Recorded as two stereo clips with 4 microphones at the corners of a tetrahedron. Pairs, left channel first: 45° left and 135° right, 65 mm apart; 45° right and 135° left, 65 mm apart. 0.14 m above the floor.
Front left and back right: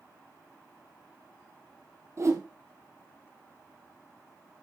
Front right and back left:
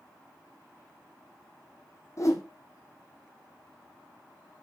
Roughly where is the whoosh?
Right.